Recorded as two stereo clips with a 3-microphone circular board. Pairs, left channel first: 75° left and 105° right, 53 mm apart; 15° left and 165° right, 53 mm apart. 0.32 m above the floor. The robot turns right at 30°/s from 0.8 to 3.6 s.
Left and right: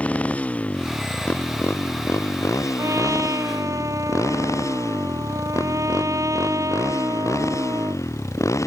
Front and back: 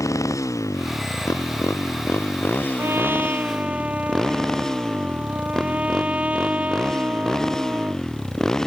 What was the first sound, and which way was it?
A motorcycle, 10° left.